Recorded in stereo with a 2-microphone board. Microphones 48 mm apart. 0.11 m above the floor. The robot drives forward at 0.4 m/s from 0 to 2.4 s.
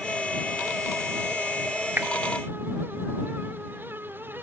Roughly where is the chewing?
I don't hear chewing.